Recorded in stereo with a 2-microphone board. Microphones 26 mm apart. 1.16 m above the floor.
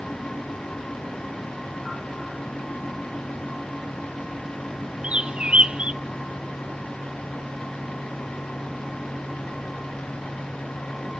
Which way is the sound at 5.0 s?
45° right (ahead or behind).